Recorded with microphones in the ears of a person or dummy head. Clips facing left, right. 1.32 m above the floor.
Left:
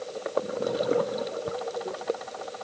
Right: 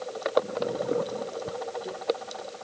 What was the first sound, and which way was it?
Only background noise.